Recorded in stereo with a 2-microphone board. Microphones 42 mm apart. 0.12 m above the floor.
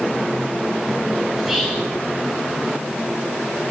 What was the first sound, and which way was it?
Whispering, 5° right (ahead or behind).